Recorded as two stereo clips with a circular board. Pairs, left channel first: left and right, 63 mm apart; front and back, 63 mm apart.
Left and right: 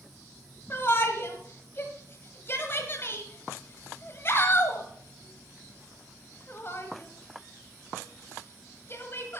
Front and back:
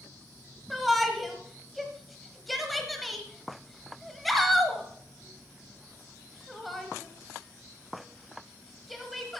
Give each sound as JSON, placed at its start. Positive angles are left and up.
{"t": 0.7, "sound": "a shout", "azimuth_deg": 90, "distance_m": 1.3}